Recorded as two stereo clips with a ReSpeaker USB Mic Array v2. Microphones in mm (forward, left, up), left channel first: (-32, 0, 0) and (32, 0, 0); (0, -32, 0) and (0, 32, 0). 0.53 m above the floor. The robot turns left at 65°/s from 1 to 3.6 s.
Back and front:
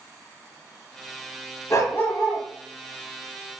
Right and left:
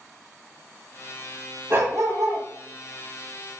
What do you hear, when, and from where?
1.7 s a dog barking: 145° left, 1.4 m; by 2.5 s 95° left, 1.4 m